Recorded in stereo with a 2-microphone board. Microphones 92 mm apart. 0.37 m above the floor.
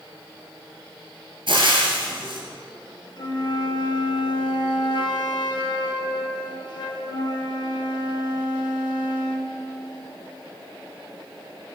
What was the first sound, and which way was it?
Frying, 70° right (ahead or behind).